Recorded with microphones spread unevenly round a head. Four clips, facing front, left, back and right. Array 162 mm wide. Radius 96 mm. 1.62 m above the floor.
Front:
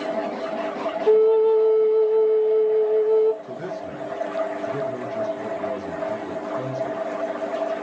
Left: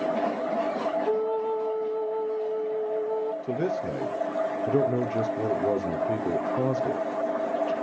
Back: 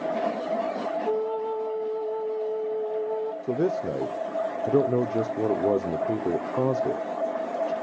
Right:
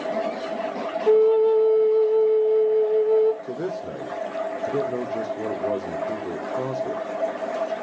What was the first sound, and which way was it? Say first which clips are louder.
A flute: right 15 dB, front 15 dB; 55° right.